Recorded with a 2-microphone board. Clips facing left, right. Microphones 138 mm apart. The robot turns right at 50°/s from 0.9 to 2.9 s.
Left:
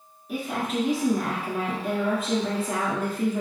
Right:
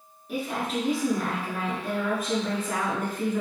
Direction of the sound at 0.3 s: Straight ahead.